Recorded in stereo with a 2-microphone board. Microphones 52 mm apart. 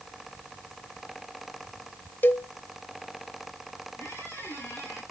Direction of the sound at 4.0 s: 85° left.